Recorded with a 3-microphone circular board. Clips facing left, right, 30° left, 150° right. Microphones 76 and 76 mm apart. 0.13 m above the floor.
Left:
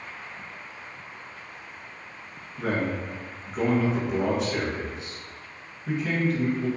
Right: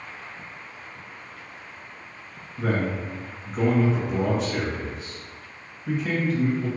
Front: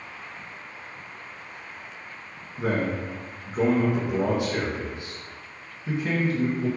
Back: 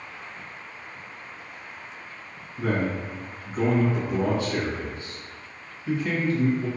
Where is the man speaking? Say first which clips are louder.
Right 1 dB, even; straight ahead, 1.4 m.